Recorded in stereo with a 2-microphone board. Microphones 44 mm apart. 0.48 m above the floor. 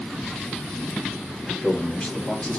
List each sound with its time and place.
1.4 s a man speaking: 35° left (ahead or behind), 2 m